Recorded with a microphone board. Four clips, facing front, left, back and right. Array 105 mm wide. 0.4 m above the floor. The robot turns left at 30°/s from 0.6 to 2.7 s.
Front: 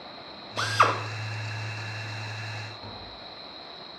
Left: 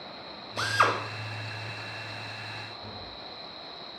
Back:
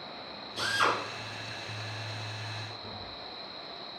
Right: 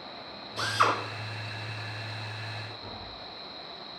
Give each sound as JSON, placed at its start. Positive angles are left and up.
{"t": 0.6, "sound": "a drill", "azimuth_deg": 30, "distance_m": 1.5}
{"t": 2.8, "sound": "tapping", "azimuth_deg": 15, "distance_m": 2.5}